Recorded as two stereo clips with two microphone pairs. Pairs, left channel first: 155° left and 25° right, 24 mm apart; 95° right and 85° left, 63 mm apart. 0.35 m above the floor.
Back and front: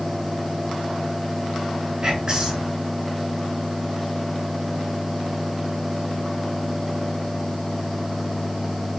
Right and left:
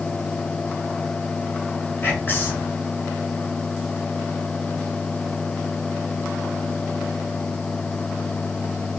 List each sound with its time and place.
2.0 s whispering: 55° right, 1.7 m